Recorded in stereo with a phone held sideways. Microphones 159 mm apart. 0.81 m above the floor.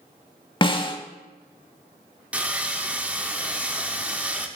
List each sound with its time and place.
0.6 s a snare drum: 30° left (ahead or behind), 0.7 m
2.3 s sawing: 10° right (ahead or behind), 0.7 m